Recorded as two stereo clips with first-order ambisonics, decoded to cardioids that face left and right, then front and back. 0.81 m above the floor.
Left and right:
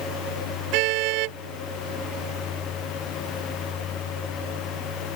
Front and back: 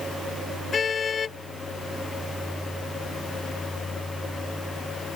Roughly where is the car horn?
Right.